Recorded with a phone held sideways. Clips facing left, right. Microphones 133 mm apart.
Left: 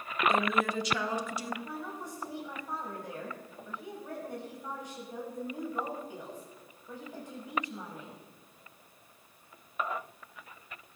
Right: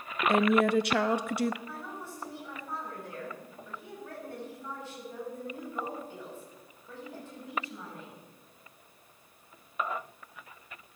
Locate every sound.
0.3 s a woman speaking: 60° right (ahead or behind), 1.1 m
1.6 s a woman speaking: 15° left (ahead or behind), 5.5 m